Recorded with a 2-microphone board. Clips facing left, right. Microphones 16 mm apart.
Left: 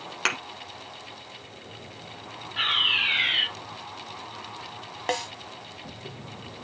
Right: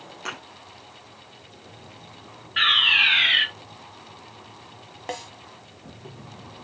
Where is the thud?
70° left (ahead or behind), 2 m.